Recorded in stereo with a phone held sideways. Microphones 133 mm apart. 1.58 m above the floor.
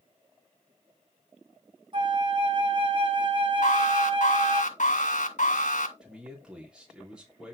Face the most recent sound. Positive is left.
turn(degrees=-5)  # may be behind; listen again after turning